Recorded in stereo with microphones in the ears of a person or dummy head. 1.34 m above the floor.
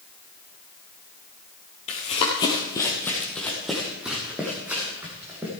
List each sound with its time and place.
1.9 s running footsteps: 30° left (ahead or behind), 1.8 m; by 5.5 s 15° right (ahead or behind), 4 m